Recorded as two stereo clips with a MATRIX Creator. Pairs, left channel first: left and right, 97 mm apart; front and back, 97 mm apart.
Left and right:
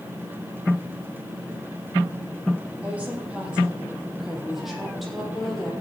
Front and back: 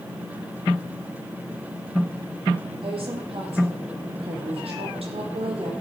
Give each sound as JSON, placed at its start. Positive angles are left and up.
{"t": 2.8, "sound": "a woman speaking", "azimuth_deg": -165, "distance_m": 5.0}